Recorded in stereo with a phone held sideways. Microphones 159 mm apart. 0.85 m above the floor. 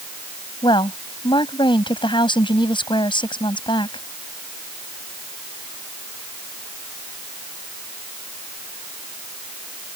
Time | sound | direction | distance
0.6 | a woman speaking | 30° left (ahead or behind) | ?